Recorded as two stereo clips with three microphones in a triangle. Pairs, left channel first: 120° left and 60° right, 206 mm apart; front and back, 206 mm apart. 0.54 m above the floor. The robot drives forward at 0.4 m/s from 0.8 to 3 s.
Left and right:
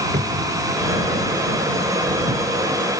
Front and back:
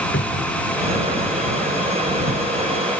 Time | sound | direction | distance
0.1 | a cupboard door | 10° right | ?